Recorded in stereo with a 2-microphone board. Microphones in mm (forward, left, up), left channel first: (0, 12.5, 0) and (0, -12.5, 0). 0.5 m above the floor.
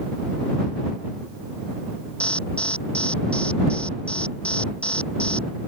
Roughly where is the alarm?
Left.